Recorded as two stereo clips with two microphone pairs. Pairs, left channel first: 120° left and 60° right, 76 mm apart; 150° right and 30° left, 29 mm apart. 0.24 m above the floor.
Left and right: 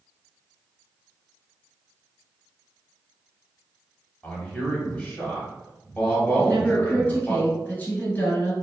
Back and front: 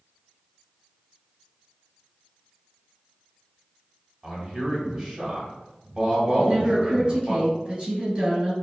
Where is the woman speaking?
65° left, 1.8 m.